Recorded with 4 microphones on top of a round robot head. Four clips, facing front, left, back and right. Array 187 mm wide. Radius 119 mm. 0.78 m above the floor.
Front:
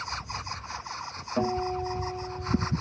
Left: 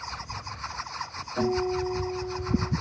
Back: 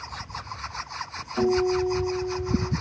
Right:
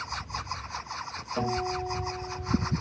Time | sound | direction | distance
1.4 | a guitar | 5° right | 3 m